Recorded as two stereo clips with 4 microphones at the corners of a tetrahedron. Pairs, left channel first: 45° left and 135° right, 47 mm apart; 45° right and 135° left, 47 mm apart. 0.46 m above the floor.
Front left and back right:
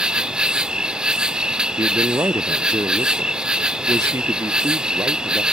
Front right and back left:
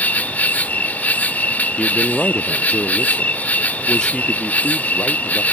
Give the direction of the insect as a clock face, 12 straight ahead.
2 o'clock.